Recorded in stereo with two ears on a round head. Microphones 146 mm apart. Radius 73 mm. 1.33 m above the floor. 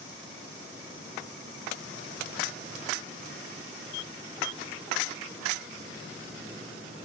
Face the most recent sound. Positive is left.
No sound to turn to.